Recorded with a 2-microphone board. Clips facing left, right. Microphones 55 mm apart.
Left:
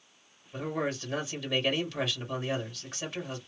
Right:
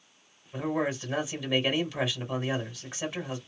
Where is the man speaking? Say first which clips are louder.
Right 3 dB; 15° right (ahead or behind), 1.8 m.